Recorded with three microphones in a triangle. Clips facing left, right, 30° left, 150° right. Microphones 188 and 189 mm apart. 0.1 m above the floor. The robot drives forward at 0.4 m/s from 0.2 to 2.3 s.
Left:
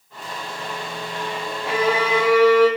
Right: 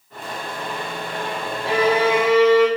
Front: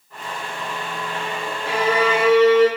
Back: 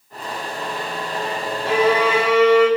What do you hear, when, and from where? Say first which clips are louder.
1.6 s a violin: right 3 dB, back 3 dB; 150° right, 0.6 m; by 2.7 s 160° right, 0.8 m